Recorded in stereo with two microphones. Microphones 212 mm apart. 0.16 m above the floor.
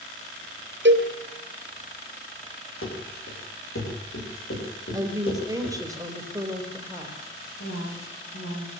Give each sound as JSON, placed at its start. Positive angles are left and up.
{"t": 0.8, "sound": "a cowbell", "side_deg": -60, "distance_m": 2.5}
{"t": 2.8, "sound": "running footsteps", "side_deg": 85, "distance_m": 7.0}
{"t": 4.9, "sound": "a woman speaking", "side_deg": -15, "distance_m": 4.0}
{"t": 7.6, "sound": "a woman speaking", "side_deg": 80, "distance_m": 8.0}